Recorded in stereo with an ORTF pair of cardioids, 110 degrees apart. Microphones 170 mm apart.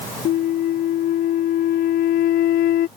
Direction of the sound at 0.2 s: 65° left.